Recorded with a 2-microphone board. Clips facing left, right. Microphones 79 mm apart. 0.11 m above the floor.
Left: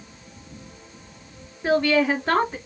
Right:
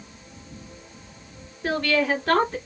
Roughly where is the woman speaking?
Centre.